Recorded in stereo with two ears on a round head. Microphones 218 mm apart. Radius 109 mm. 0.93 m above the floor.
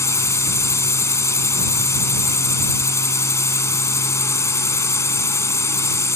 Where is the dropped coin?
I don't hear a dropped coin.